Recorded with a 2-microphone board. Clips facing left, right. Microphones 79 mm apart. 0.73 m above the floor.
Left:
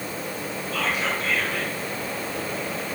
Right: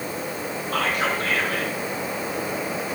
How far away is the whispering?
About 7 m.